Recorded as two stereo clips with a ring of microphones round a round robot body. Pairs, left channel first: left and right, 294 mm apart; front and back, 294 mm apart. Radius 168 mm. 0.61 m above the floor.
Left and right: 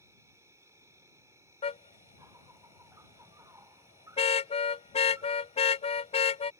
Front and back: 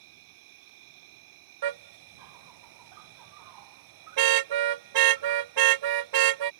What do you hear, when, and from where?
0.0 s an insect: 170° right
1.6 s a car horn: 165° left